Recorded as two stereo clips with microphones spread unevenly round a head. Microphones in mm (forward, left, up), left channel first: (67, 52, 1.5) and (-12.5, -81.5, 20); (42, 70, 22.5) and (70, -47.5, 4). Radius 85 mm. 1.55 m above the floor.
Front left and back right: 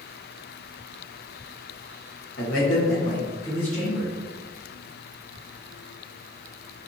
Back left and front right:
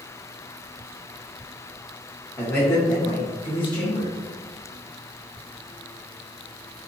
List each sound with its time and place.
2.4 s a man speaking: 50° left, 0.7 m; by 4.1 s 160° left, 1.0 m